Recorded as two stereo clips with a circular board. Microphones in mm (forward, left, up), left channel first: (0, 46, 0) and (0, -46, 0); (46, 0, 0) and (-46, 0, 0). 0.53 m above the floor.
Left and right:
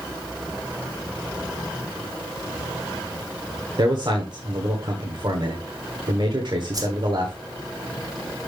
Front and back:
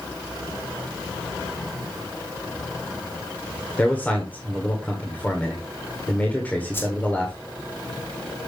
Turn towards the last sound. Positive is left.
turn(degrees=-55)